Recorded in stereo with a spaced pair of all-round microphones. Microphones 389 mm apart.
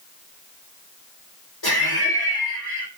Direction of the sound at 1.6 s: 70° left (ahead or behind).